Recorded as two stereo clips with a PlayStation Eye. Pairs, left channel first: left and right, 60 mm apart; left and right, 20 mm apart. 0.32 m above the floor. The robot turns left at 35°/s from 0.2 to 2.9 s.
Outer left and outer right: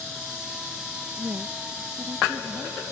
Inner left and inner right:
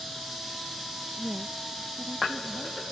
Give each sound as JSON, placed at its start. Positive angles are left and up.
{"t": 1.2, "sound": "a woman speaking", "azimuth_deg": -75}